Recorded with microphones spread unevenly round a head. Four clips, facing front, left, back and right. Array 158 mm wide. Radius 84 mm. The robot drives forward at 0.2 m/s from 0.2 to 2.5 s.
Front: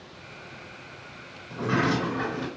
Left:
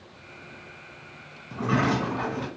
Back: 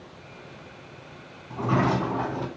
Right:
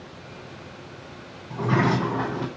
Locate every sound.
1.5 s a sliding door: 150° right, 2.5 m; by 2.5 s 155° right, 2.5 m